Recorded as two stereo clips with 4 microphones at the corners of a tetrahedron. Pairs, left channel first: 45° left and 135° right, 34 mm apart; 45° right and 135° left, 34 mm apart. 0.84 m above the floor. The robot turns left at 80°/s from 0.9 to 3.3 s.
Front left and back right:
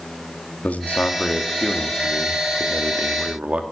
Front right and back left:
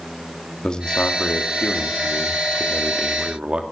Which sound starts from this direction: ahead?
A man speaking, at 0.6 s.